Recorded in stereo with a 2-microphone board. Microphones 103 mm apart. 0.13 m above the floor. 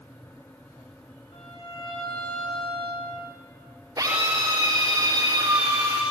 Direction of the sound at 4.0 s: 35° right (ahead or behind).